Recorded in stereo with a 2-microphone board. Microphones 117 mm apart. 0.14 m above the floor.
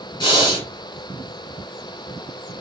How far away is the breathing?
About 1.3 m.